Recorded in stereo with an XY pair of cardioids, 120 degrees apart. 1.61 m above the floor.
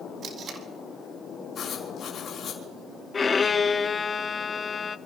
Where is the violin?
30° left, 0.5 m.